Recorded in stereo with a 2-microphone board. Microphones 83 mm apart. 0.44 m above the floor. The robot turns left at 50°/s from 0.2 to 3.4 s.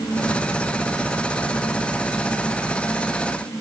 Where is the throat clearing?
I don't hear throat clearing.